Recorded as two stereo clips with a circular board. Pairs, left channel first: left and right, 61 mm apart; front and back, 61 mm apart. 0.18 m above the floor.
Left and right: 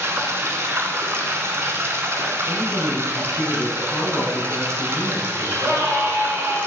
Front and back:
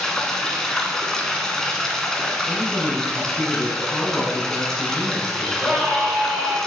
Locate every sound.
0.0 s running water: 80° right, 1.0 m
2.5 s a man speaking: 80° left, 1.6 m
5.4 s a scream: 110° right, 2 m